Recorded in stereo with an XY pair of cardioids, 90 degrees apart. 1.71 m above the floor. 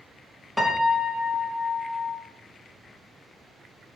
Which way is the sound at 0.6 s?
15° left.